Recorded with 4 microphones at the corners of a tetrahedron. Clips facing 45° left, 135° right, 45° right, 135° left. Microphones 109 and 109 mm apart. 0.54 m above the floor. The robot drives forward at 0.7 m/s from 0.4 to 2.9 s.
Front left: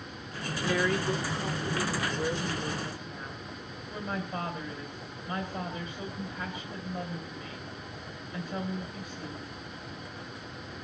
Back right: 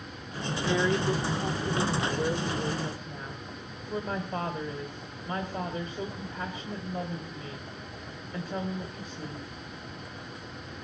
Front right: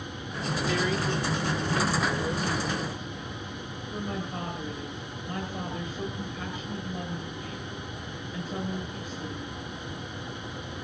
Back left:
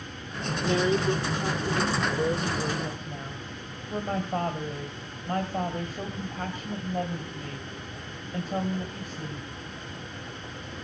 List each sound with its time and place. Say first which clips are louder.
0.6 s a woman speaking: back right 2 dB, back left 5 dB; 170° left, 1.3 m; by 9.5 s 175° left, 2.5 m